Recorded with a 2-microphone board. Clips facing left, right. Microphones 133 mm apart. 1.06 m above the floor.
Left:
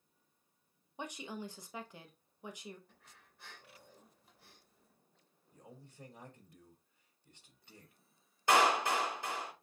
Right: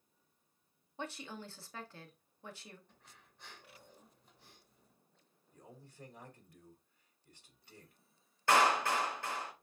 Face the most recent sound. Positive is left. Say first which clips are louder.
# even
turn(degrees=15)  # may be behind; listen again after turning